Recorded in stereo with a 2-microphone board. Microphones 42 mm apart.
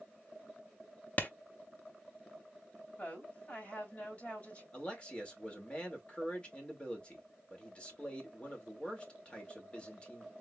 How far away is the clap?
About 0.8 m.